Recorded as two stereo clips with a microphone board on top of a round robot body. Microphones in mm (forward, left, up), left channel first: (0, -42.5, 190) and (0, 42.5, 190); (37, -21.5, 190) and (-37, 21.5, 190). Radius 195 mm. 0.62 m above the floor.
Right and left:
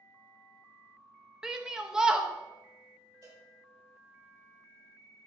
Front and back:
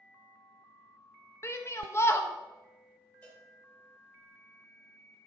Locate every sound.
1.4 s a shout: 10° left, 0.8 m
3.2 s a cowbell: 40° left, 2.5 m